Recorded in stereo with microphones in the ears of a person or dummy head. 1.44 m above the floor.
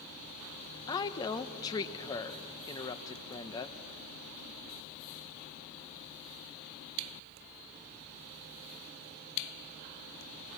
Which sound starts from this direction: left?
A woman speaking, at 0.9 s.